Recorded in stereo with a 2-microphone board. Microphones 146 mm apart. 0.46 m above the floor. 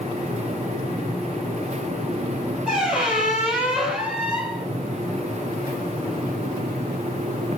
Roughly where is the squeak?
Centre.